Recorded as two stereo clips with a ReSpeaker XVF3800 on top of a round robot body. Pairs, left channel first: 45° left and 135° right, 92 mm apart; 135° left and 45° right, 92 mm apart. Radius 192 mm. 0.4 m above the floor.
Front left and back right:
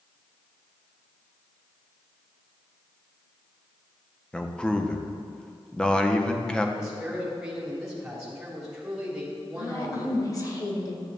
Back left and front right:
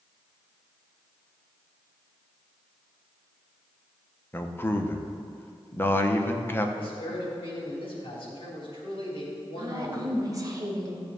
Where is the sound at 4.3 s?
115° left, 1.1 m.